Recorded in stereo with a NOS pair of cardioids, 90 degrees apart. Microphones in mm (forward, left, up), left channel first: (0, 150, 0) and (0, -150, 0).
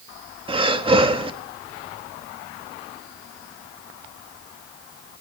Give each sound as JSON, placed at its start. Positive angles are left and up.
{"t": 0.5, "sound": "breathing", "azimuth_deg": -20, "distance_m": 1.6}